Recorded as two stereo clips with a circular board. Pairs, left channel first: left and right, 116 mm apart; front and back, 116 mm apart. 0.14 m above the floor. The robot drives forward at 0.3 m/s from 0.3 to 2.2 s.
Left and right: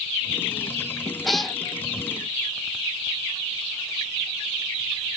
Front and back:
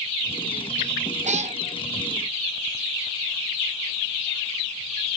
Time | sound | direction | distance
1.2 | a cat meowing | straight behind | 0.5 m